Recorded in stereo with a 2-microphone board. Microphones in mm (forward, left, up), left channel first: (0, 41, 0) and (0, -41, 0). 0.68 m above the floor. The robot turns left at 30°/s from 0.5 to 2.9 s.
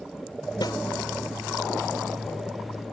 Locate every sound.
0.6 s a snare drum: 60° left (ahead or behind)